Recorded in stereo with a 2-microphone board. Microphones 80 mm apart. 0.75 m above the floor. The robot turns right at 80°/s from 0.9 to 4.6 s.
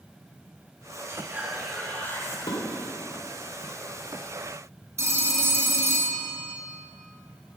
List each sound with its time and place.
1.1 s whispering: 45° right, 1.3 m; by 2.4 s 55° left, 1.3 m
2.5 s dishes clattering: 75° left (ahead or behind), 1.6 m; by 2.6 s 85° left, 1.6 m
5.0 s a phone ringing: 40° right (ahead or behind), 0.7 m